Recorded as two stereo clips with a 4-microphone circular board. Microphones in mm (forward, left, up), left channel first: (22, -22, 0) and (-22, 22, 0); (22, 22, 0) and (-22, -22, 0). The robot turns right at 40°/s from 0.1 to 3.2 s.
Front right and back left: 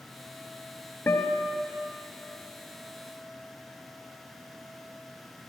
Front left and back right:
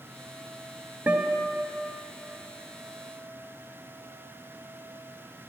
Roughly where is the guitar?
Right.